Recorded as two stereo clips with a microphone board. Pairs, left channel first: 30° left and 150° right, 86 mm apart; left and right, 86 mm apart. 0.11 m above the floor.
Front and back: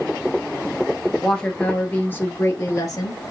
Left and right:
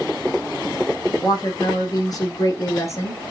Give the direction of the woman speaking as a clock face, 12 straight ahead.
8 o'clock.